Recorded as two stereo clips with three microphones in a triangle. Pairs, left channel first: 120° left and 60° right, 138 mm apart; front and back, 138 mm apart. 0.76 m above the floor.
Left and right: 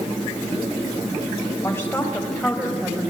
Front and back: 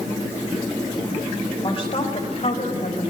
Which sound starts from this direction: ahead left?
A woman speaking, at 1.6 s.